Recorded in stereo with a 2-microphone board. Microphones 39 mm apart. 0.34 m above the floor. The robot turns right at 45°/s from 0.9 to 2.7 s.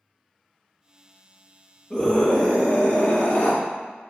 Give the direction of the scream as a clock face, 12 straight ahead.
12 o'clock.